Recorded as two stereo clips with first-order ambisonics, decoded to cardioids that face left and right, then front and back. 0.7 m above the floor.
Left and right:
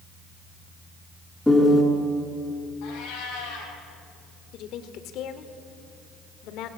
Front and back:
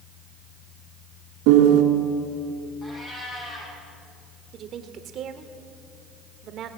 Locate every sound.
1.5 s a piano: straight behind, 3 m
2.8 s a cat meowing: 65° left, 6 m
4.5 s a woman speaking: 130° left, 1.9 m